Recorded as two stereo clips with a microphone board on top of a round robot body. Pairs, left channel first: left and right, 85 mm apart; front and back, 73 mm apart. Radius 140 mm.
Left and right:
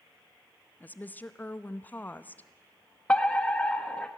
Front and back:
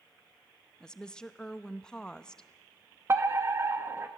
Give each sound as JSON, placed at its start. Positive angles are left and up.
{"t": 0.8, "sound": "a woman speaking", "azimuth_deg": 65, "distance_m": 1.0}
{"t": 3.1, "sound": "a fire alarm", "azimuth_deg": 160, "distance_m": 1.9}